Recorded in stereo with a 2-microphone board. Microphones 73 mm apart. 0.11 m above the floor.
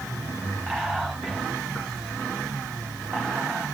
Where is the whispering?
10° left (ahead or behind), 7.5 m.